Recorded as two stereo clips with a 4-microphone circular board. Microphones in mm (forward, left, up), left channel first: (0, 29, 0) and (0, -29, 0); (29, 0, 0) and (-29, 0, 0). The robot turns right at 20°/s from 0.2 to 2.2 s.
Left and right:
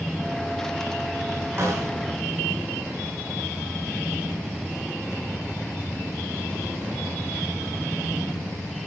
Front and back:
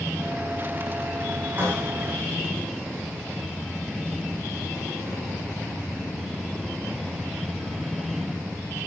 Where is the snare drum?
125° right, 6.5 m; by 1.9 s 115° right, 6.5 m.